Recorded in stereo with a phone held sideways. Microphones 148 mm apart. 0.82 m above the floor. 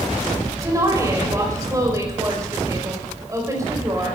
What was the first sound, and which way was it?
A woman speaking, 20° right (ahead or behind).